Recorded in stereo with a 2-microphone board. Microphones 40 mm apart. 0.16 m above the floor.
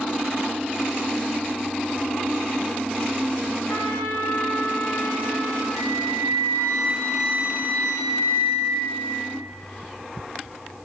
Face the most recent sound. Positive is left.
turn(degrees=75)  # may be behind; listen again after turning